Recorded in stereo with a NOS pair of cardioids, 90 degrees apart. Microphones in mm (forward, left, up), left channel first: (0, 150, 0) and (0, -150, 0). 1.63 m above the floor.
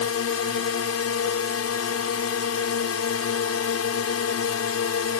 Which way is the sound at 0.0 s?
55° left.